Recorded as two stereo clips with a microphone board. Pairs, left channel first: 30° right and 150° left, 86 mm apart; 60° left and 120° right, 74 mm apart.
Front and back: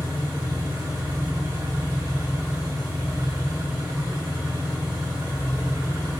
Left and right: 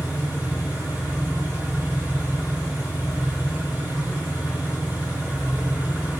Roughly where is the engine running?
Behind.